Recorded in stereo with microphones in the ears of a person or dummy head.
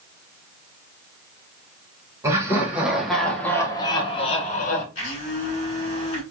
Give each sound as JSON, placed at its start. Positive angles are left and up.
{"t": 2.2, "sound": "laughter", "side_deg": -20, "distance_m": 1.5}
{"t": 5.0, "sound": "a blender", "side_deg": 35, "distance_m": 1.9}